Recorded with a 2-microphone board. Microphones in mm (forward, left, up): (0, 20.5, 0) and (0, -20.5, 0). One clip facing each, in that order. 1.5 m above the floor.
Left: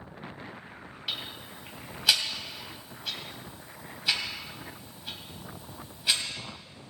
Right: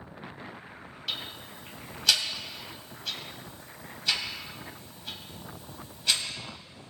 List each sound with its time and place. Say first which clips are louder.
1.1 s ticking: even; 15° left (ahead or behind), 2.5 m